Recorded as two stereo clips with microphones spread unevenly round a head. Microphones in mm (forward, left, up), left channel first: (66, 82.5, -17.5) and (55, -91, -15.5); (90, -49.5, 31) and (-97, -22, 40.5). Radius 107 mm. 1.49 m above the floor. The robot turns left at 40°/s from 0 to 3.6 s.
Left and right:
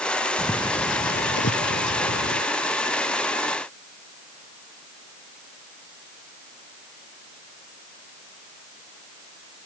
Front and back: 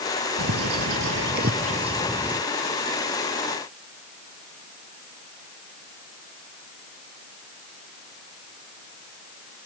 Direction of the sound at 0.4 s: 165° left.